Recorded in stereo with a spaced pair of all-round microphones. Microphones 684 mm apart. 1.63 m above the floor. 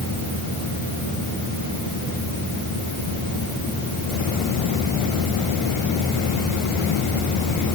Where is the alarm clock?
I don't hear an alarm clock.